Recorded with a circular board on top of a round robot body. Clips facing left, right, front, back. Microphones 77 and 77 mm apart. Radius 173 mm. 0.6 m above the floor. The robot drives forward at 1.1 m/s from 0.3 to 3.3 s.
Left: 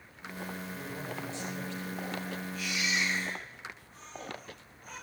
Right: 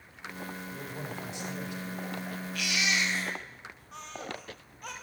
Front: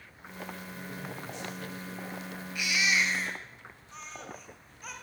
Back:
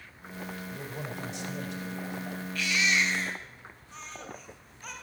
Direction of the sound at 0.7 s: 160° right.